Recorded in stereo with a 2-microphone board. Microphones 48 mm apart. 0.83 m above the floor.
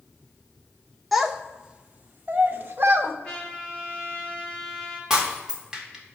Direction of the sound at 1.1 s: Centre (ahead or behind).